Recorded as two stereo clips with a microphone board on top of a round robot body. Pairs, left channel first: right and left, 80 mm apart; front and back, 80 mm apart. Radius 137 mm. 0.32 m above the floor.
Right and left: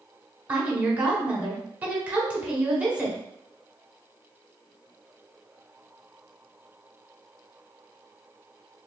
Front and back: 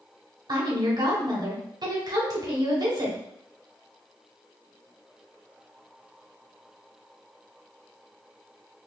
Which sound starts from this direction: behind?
A woman speaking, at 0.5 s.